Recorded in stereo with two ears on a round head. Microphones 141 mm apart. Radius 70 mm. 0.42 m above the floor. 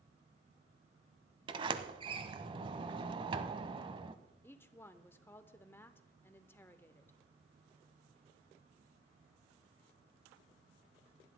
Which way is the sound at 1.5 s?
30° right (ahead or behind).